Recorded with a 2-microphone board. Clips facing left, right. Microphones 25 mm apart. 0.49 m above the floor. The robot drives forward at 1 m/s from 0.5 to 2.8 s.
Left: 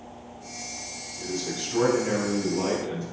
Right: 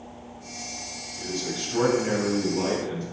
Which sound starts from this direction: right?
A man speaking, at 1.2 s.